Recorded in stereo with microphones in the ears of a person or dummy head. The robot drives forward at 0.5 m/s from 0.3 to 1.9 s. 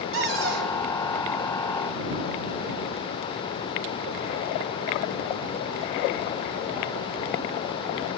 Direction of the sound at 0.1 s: 75° right (ahead or behind).